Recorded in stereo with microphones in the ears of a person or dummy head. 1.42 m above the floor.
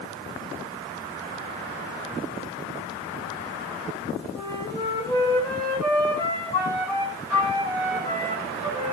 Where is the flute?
10° left (ahead or behind), 9 m.